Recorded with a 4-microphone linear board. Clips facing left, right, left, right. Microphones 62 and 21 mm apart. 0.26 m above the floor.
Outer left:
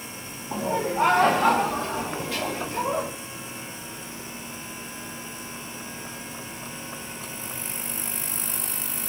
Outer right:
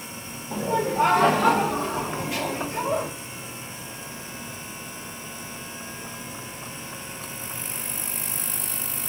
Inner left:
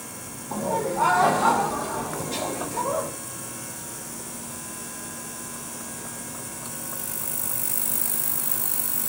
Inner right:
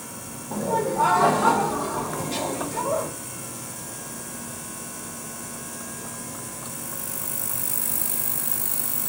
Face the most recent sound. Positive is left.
turn(degrees=-25)  # may be behind; listen again after turning